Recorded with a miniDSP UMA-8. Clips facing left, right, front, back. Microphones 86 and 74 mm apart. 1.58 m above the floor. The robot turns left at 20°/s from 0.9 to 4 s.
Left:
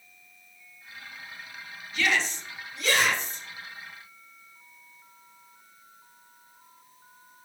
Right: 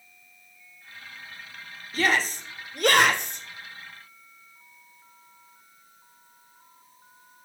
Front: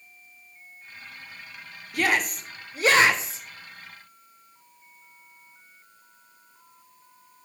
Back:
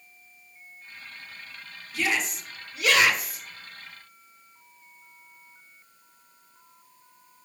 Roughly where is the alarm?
No alarm in this recording.